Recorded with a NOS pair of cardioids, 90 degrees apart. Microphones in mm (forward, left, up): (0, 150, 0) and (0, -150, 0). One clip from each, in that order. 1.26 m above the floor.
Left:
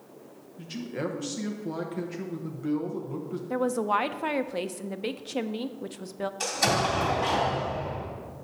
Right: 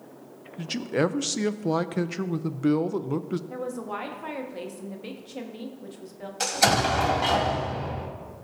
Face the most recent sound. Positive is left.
turn(degrees=-40)